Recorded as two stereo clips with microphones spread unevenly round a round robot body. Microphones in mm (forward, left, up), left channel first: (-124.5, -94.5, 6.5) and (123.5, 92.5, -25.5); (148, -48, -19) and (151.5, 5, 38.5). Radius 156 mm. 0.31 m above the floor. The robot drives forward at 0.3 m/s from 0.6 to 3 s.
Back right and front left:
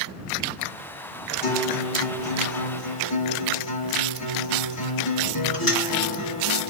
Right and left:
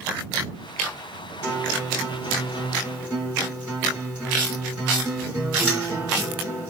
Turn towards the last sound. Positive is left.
turn(degrees=180)